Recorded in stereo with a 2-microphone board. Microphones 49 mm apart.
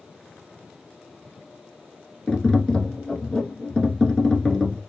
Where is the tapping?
15° left (ahead or behind), 0.7 m.